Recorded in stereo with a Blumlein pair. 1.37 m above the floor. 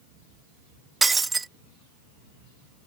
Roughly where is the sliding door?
I don't hear a sliding door.